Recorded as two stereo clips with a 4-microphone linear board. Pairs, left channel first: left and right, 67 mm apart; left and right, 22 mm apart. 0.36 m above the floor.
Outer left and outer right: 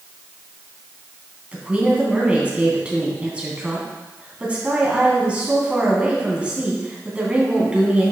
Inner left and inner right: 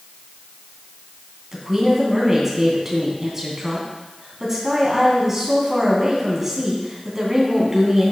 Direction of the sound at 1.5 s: 15° right (ahead or behind).